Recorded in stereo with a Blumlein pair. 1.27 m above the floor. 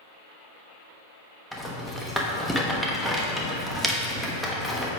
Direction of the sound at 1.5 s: Straight ahead.